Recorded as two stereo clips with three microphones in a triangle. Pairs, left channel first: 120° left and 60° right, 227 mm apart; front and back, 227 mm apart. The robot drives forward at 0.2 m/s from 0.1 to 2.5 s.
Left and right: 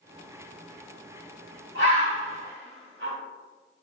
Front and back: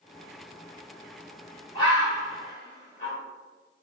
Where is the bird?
65° right, 1.5 m; by 3.1 s 70° right, 1.5 m.